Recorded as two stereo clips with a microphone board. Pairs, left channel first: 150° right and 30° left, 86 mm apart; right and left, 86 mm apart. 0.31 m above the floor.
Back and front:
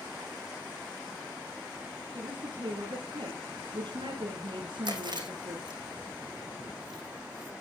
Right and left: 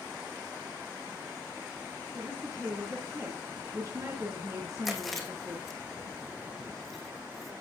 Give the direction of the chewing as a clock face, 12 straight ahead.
12 o'clock.